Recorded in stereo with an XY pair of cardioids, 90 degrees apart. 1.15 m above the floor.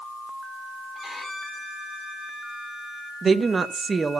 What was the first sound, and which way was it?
A violin, 35° left.